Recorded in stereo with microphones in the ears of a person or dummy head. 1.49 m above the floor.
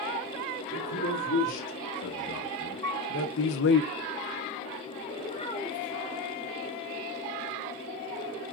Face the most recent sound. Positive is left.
turn(degrees=30)  # may be behind; listen again after turning